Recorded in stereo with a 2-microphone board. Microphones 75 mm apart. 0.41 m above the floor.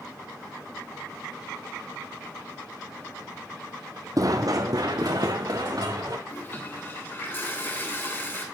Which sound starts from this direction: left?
A toilet flushing, at 6.3 s.